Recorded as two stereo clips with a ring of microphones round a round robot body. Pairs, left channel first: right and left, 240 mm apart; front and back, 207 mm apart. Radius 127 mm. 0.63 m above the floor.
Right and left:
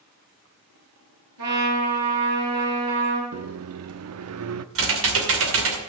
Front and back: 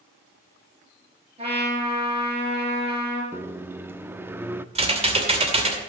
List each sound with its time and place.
1.4 s a trumpet: 120° left, 6.5 m
3.3 s a microwave: 100° left, 0.6 m
4.8 s typing on a keyboard: 120° left, 2.5 m